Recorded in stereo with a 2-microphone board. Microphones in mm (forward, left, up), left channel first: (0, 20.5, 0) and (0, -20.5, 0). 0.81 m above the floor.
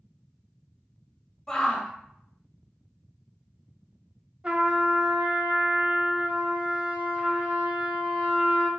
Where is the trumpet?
30° right (ahead or behind), 1.0 m.